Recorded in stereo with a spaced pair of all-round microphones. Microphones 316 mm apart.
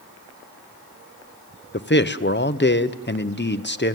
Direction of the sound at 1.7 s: 35° left (ahead or behind).